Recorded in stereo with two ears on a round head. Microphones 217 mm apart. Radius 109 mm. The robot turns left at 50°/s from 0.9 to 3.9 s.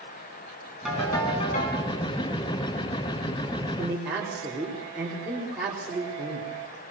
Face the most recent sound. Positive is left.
turn(degrees=-5)  # may be behind; listen again after turning